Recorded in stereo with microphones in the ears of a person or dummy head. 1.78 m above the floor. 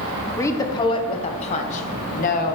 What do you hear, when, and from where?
0.4 s a woman speaking: 15° left (ahead or behind), 1.4 m; by 2.5 s 45° left (ahead or behind), 2 m